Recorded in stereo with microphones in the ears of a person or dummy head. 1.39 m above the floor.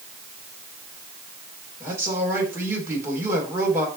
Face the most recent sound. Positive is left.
turn(degrees=-15)  # may be behind; listen again after turning